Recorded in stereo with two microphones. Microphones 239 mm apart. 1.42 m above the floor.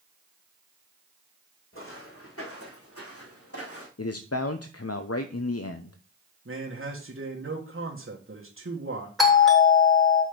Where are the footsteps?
60° left (ahead or behind), 4 m; by 3.9 s 70° left (ahead or behind), 4.5 m.